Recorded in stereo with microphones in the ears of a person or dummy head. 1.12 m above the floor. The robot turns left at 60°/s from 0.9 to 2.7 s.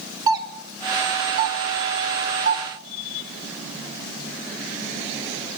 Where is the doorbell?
20° right (ahead or behind), 2.5 m; by 2.7 s 45° right (ahead or behind), 2.5 m.